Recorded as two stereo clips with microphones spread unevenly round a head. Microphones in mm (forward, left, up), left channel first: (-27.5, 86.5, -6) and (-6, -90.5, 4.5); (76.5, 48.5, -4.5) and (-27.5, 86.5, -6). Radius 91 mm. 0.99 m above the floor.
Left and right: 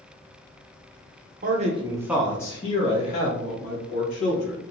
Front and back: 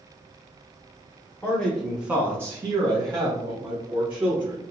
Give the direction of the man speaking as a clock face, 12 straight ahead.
3 o'clock.